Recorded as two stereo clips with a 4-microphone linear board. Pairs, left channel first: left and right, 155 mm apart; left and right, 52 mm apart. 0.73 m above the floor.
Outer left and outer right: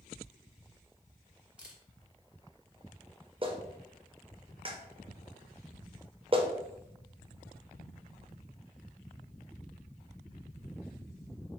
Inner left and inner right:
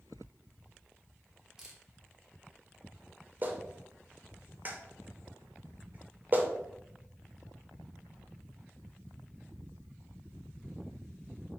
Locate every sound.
1.6 s a camera shutter: 5° right (ahead or behind), 1.0 m
3.4 s a clap: 35° right (ahead or behind), 0.8 m